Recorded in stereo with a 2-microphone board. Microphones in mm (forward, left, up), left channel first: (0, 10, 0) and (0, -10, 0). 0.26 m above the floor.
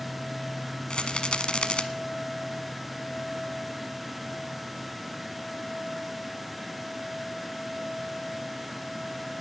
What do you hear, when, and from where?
0.9 s a rattle: 55° left (ahead or behind), 1.0 m